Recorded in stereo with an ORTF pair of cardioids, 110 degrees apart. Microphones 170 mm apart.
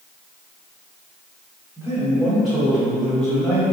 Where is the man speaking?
5° right, 1.9 m; by 3.7 s 10° left, 0.9 m.